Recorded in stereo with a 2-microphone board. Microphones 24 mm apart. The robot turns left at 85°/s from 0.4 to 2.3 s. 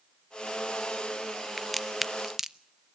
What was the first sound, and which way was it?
A crack, 10° left (ahead or behind).